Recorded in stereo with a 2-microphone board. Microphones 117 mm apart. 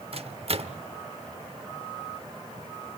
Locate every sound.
0.1 s a microwave: 55° right (ahead or behind), 0.9 m